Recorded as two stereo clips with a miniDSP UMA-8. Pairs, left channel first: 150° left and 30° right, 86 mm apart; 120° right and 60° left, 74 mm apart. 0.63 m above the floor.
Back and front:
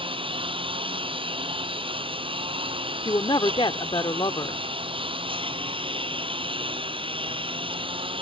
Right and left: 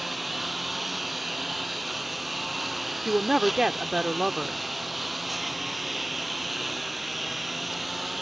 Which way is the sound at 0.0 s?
30° right.